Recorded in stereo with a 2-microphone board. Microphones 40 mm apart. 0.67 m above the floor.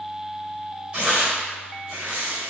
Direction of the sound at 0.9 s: 30° right (ahead or behind).